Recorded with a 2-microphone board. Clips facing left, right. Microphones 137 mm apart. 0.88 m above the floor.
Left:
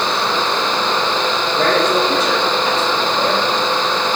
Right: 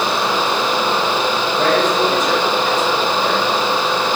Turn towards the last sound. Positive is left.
turn(degrees=55)  # may be behind; listen again after turning